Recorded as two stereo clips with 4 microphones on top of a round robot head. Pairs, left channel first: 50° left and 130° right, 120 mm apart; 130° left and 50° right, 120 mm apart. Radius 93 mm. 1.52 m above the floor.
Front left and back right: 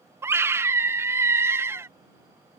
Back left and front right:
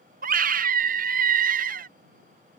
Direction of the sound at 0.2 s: 55° right.